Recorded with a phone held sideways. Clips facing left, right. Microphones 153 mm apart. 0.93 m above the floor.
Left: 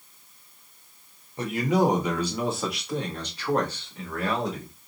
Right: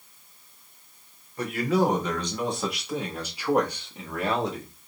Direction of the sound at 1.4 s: 25° left (ahead or behind).